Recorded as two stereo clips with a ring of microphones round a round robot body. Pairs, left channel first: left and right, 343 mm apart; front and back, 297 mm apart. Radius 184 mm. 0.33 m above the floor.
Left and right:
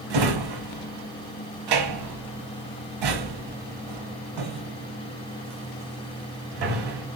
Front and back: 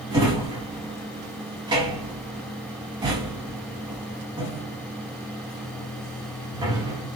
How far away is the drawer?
About 1.0 m.